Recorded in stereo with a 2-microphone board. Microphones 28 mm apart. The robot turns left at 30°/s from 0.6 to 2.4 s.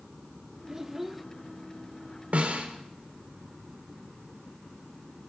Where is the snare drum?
60° right (ahead or behind), 4.5 m.